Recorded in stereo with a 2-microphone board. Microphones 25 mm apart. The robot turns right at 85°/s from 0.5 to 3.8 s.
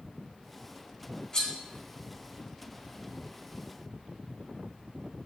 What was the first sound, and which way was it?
Cutlery clinking, 30° left (ahead or behind).